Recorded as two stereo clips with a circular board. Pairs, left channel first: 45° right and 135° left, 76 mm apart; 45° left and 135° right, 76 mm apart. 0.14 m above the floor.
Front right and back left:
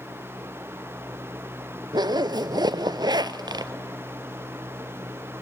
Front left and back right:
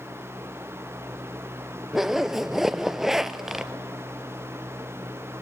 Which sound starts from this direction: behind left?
A zipper, at 1.9 s.